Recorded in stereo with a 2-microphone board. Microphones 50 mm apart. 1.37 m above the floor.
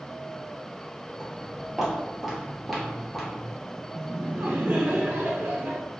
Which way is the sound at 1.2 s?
10° right (ahead or behind).